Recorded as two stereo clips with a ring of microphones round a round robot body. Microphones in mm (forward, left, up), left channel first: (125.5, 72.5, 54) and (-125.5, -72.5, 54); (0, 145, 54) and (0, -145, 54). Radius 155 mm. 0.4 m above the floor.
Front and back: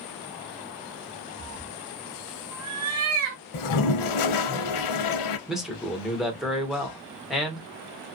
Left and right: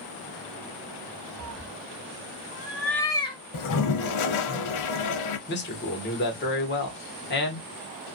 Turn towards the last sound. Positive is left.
turn(degrees=120)